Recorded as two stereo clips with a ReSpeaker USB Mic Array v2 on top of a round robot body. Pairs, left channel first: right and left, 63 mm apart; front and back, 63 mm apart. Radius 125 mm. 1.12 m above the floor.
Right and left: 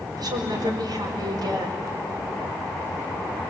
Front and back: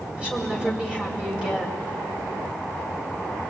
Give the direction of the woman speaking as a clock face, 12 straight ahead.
8 o'clock.